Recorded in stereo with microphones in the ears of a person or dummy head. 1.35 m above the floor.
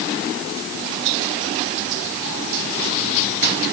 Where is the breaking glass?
No breaking glass in this recording.